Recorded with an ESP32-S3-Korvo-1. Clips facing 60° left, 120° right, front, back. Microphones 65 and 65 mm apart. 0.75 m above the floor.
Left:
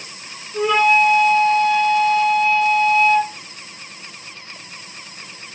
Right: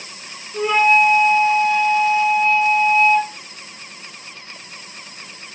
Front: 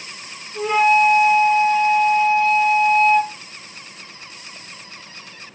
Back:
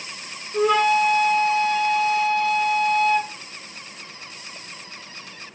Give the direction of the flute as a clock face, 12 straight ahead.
7 o'clock.